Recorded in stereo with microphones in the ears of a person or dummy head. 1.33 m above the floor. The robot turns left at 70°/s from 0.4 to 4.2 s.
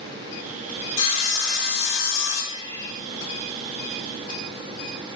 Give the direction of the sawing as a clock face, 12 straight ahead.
7 o'clock.